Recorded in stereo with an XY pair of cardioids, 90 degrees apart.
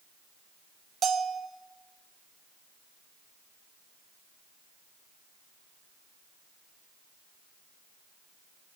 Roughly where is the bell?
Ahead right.